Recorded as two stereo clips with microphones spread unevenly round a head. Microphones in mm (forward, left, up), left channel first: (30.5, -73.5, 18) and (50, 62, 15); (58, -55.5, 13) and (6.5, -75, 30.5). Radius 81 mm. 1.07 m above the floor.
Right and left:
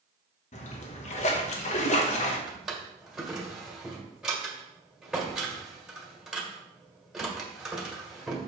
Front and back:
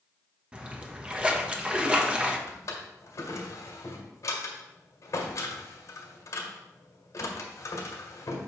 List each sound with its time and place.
0.5 s a splash: 80° right, 1.1 m
2.5 s a drawer: 5° right, 1.7 m